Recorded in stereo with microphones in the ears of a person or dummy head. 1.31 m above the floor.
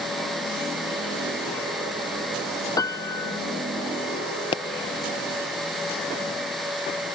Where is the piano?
20° left (ahead or behind).